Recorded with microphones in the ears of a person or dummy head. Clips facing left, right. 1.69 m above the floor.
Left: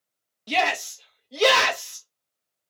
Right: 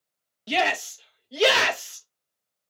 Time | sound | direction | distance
0.5 | a shout | 10° right (ahead or behind) | 1.5 m